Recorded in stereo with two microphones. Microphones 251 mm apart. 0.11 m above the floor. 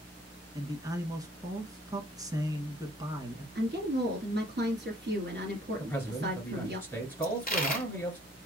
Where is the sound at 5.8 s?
10° left (ahead or behind), 1.5 m.